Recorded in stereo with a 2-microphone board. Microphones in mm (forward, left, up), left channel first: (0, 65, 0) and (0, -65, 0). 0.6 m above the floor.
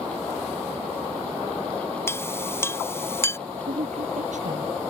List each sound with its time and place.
2.1 s a clink: 20° left (ahead or behind)
3.7 s a woman speaking: 80° right